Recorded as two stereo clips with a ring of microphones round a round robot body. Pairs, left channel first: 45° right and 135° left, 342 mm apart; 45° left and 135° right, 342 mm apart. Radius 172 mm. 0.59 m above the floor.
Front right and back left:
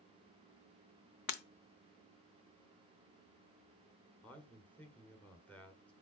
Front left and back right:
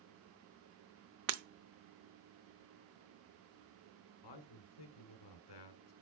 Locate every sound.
1.3 s breaking glass: 90° right, 0.8 m
4.2 s a man speaking: 40° left, 1.8 m